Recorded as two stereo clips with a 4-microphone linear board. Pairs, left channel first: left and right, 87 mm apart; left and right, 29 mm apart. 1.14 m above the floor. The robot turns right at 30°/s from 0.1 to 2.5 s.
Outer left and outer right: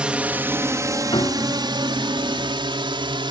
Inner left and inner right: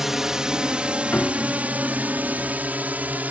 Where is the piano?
70° left (ahead or behind); by 1.6 s 60° left (ahead or behind).